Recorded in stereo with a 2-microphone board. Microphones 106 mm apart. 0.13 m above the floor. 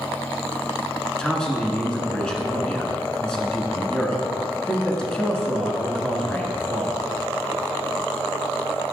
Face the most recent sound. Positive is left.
turn(degrees=5)  # may be behind; listen again after turning